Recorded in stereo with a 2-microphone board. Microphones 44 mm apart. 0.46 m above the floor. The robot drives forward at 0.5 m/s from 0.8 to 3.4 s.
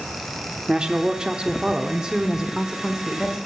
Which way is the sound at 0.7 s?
20° right (ahead or behind).